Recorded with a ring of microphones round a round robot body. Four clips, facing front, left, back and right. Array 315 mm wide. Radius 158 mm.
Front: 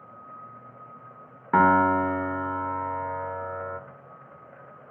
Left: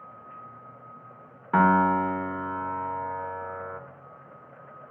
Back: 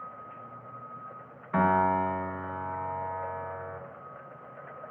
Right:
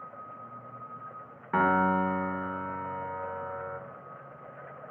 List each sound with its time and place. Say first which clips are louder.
1.5 s a piano: left 4 dB, front 5 dB; 10° left, 0.9 m